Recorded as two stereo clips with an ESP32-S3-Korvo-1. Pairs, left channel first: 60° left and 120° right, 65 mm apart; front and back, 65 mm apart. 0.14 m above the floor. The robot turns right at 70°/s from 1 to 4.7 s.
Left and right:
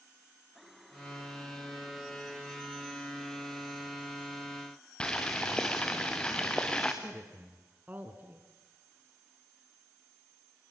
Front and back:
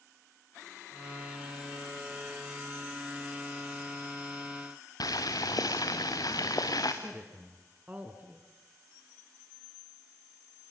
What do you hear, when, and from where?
5.0 s boiling: 15° right, 2.5 m
7.0 s a woman speaking: 140° right, 1.5 m